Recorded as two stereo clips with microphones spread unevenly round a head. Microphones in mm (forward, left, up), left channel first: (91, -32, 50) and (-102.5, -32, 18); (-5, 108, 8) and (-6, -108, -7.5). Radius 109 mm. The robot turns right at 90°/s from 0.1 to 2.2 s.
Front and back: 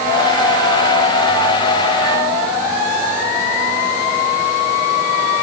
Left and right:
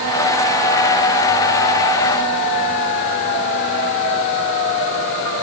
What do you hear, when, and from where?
Only background noise.